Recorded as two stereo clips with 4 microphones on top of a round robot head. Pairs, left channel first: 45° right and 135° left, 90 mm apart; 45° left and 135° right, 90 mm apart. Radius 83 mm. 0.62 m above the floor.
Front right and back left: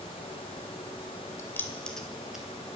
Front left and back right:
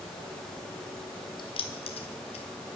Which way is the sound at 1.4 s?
15° left.